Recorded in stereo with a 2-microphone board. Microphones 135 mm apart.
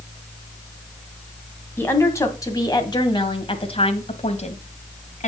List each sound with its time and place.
1.8 s a woman speaking: 20° left (ahead or behind), 2.5 m; by 5.3 s 65° left (ahead or behind), 2 m